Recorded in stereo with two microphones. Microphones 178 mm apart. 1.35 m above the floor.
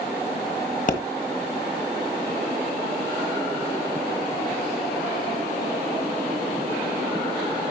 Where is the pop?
50° left (ahead or behind), 1.9 m.